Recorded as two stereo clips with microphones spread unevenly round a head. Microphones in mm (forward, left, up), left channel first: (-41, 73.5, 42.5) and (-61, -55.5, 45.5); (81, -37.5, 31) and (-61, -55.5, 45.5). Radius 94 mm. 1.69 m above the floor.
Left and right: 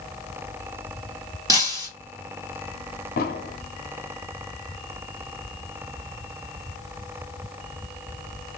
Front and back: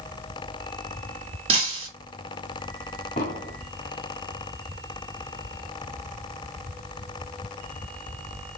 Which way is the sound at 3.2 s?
65° left.